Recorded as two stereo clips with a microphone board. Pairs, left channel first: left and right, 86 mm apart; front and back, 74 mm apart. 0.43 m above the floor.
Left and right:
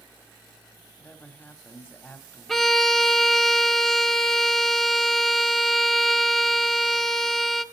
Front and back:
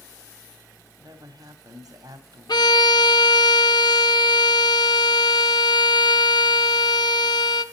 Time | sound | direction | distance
1.0 | a woman speaking | 155° left | 2.5 m
2.5 | a violin | straight ahead | 0.8 m